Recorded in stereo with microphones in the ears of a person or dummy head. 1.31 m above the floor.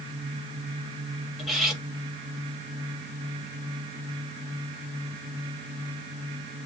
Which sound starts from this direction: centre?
Cutlery clinking, at 1.4 s.